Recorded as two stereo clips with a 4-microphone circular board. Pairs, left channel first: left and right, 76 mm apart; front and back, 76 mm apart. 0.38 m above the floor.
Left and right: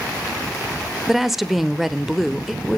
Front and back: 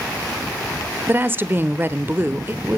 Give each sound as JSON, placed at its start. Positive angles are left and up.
{"t": 1.1, "sound": "a woman speaking", "azimuth_deg": -175, "distance_m": 0.9}